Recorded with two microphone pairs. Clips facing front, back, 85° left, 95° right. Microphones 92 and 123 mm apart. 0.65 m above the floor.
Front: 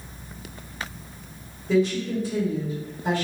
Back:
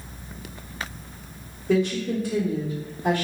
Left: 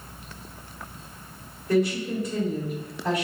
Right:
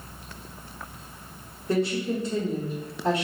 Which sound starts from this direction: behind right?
A woman speaking, at 1.7 s.